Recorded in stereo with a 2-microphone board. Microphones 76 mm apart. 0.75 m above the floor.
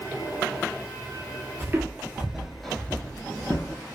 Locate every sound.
1.6 s footsteps: 35° right (ahead or behind), 0.9 m; by 3.8 s 40° left (ahead or behind), 1.0 m